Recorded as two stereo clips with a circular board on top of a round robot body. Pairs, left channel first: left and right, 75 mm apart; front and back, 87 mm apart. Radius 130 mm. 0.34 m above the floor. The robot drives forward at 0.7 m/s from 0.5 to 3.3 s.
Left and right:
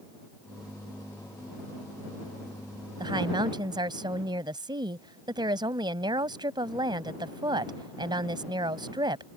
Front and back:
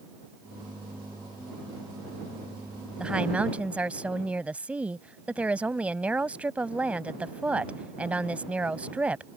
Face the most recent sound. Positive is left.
turn(degrees=-105)